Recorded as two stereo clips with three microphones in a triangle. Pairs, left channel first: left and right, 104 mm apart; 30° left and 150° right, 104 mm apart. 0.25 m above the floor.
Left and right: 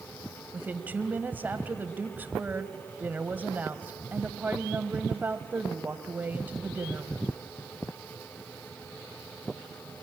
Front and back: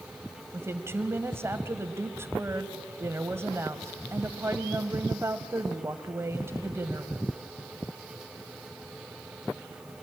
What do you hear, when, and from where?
0.5 s a woman speaking: 135° right, 1.2 m